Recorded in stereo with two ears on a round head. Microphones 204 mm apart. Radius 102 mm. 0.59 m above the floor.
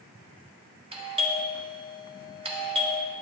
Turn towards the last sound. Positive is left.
turn(degrees=-25)  # may be behind; listen again after turning